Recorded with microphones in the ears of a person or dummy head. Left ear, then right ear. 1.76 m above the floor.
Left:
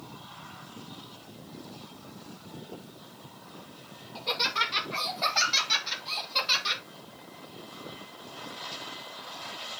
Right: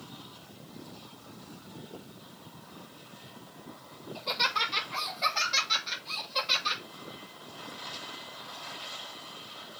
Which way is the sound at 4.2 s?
Centre (ahead or behind).